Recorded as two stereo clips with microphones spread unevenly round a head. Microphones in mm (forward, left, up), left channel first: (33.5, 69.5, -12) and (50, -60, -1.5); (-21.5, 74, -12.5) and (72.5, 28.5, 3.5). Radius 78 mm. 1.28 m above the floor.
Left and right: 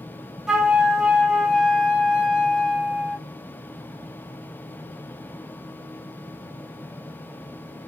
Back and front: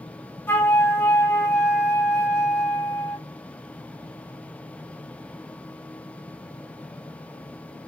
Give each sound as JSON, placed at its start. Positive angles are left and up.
{"t": 0.5, "sound": "a flute", "azimuth_deg": -145, "distance_m": 0.9}